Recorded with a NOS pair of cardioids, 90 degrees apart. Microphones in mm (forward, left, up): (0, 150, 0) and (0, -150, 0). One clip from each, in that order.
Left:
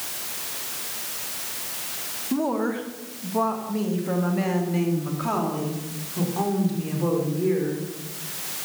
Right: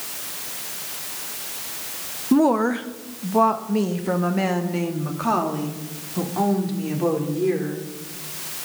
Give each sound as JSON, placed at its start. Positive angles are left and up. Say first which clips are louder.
{"t": 2.3, "sound": "a woman speaking", "louder": "right 7 dB", "azimuth_deg": -40, "distance_m": 0.9}